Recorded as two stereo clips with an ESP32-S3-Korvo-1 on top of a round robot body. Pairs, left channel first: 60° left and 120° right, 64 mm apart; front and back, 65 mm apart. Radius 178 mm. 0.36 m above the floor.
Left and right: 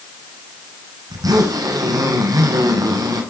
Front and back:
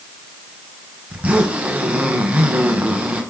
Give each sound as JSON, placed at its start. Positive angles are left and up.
{"t": 1.1, "sound": "a zipper", "azimuth_deg": -115, "distance_m": 5.0}